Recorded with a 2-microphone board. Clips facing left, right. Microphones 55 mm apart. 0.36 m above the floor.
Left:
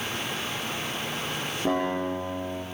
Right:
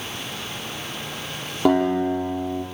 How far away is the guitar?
About 7 m.